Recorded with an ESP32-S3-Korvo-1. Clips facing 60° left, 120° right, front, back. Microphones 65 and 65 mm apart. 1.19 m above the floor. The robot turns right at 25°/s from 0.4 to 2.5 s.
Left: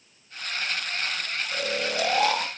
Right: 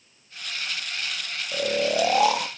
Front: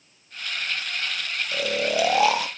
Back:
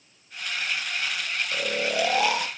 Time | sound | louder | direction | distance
1.5 | snoring | right 6 dB, front 3 dB | 75° right | 0.6 m